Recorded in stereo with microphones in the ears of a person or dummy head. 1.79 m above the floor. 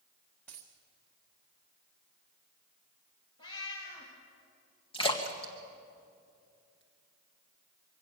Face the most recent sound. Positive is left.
turn(degrees=25)  # may be behind; listen again after turning